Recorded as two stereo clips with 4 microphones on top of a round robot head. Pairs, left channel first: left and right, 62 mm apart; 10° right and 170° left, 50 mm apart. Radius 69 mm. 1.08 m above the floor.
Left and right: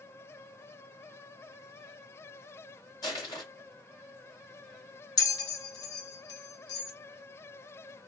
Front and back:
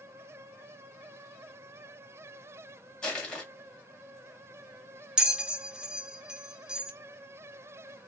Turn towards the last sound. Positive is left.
turn(degrees=95)